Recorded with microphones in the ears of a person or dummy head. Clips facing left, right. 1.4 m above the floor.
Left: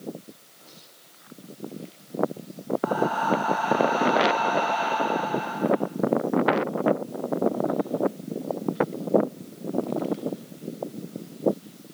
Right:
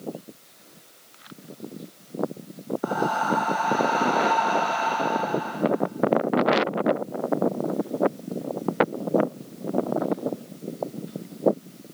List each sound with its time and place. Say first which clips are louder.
2.8 s breathing: even; 35° right (ahead or behind), 6 m